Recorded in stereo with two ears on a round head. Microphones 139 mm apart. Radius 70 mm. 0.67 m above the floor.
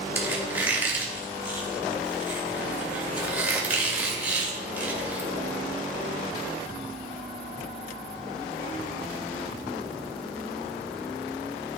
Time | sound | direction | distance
0.1 | a squeak | 15° right (ahead or behind) | 2 m